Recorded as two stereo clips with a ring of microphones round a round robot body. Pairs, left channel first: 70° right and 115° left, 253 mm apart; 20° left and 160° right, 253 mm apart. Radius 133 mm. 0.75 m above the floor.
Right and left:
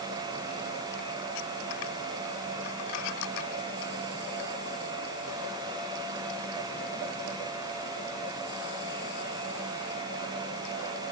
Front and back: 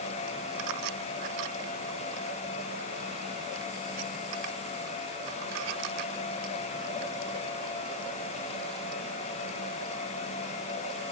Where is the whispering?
I don't hear whispering.